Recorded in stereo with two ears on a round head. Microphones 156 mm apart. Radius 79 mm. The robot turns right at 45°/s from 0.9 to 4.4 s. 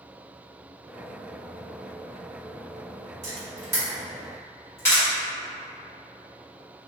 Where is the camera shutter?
40° right (ahead or behind), 1.5 m; by 5.0 s 15° left (ahead or behind), 1.5 m.